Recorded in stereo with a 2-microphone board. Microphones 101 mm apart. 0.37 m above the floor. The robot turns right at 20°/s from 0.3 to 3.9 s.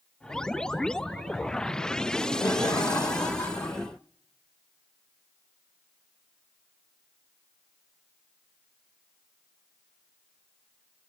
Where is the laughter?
90° left, 1.3 m; by 3.9 s 125° left, 1.3 m.